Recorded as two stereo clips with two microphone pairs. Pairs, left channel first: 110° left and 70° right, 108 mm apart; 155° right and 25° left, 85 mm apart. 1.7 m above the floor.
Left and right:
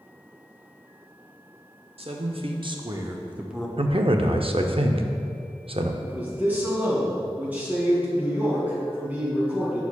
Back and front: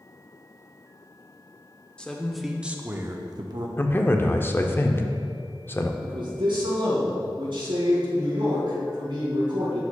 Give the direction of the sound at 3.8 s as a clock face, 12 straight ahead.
3 o'clock.